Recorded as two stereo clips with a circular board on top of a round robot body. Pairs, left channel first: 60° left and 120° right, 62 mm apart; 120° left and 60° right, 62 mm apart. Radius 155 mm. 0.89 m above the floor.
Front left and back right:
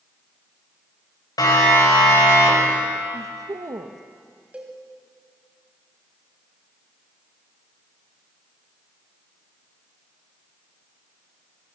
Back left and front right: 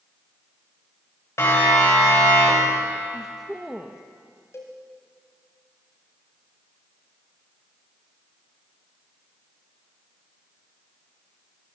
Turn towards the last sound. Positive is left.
turn(degrees=170)